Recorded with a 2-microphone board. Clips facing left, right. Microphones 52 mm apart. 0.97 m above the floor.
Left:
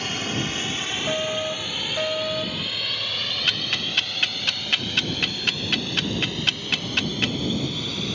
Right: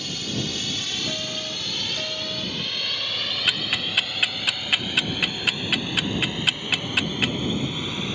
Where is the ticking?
10° right (ahead or behind).